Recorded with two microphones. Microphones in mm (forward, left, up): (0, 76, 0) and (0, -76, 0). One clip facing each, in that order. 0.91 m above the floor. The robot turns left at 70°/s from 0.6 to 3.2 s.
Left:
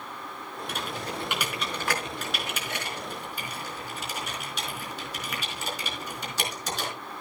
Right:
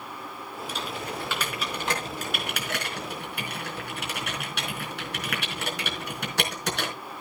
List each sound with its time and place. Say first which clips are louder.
0.7 s typing on a keyboard: even; 60° left (ahead or behind), 4.5 m; by 6.9 s 65° right (ahead or behind), 4.5 m